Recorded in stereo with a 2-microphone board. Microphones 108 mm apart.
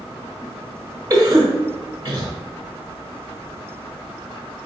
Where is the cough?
35° right (ahead or behind), 0.9 m.